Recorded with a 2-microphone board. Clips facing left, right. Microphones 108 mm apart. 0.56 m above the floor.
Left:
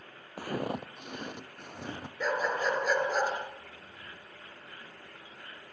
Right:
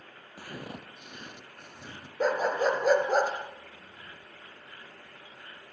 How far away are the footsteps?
About 0.9 m.